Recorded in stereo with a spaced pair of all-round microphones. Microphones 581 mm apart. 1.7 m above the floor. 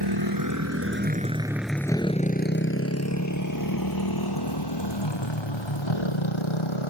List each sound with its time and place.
0.0 s a motorcycle: 40° right (ahead or behind); by 6.9 s 50° left (ahead or behind)